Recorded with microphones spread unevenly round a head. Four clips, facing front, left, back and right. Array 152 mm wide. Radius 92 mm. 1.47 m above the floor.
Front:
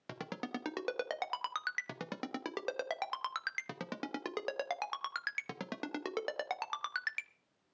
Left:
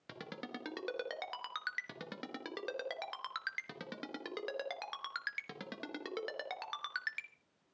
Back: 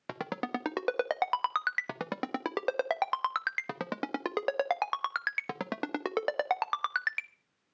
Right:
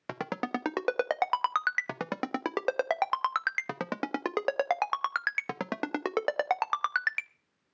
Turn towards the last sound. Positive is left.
turn(degrees=-115)